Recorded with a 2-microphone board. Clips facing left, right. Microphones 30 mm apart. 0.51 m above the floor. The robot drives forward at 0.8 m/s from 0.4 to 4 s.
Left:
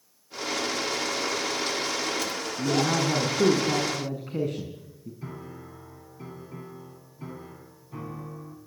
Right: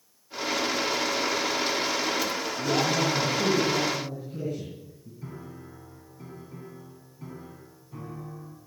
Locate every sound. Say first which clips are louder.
2.6 s a man speaking: left 1 dB; 65° left (ahead or behind), 6 m; by 5.1 s 75° left (ahead or behind), 6 m
5.2 s a piano: even; 20° left (ahead or behind), 5 m